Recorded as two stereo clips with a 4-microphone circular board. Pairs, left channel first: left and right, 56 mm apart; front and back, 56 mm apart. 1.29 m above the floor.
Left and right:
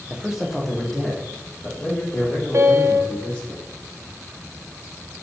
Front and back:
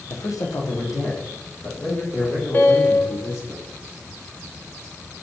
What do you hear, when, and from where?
0.1 s a man speaking: 20° right, 0.7 m; by 3.5 s 25° left, 3.5 m
2.5 s a piano: 50° right, 0.6 m